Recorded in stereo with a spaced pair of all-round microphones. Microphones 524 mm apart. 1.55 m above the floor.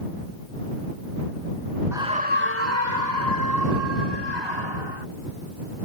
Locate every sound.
1.9 s a scream: 5° right (ahead or behind); by 5.0 s 55° right (ahead or behind)